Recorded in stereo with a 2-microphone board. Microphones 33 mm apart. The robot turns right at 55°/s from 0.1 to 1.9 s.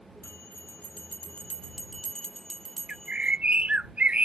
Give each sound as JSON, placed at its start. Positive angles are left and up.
{"t": 0.2, "sound": "a bell", "azimuth_deg": 75}
{"t": 2.9, "sound": "a bird", "side_deg": -40}